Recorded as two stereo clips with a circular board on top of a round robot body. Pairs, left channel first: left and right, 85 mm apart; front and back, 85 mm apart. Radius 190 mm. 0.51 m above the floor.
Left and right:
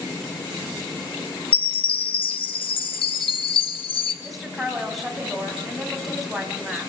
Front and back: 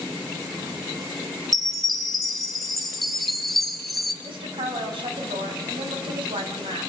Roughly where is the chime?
Left.